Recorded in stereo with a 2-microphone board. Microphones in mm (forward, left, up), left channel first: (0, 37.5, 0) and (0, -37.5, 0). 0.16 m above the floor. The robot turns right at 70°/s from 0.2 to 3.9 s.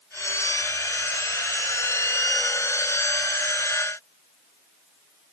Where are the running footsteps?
No running footsteps in this recording.